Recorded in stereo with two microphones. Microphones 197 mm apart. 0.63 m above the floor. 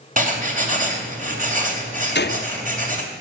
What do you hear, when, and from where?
0.2 s writing: 45° right (ahead or behind), 3 m
2.1 s a gunshot: 60° left (ahead or behind), 0.7 m